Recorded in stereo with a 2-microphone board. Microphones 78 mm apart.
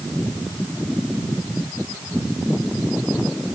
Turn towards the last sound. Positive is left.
No sound to turn to.